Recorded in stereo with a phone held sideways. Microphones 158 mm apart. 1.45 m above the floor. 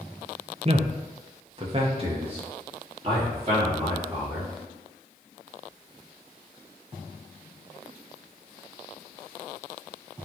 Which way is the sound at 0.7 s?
40° right (ahead or behind).